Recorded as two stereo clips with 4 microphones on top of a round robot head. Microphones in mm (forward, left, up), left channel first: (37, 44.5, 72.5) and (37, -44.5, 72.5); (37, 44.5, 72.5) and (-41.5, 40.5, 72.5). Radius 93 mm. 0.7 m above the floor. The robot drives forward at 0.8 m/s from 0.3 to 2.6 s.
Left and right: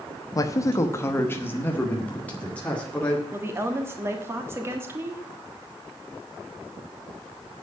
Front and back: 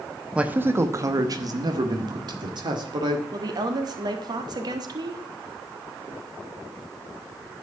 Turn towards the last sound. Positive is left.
turn(degrees=-155)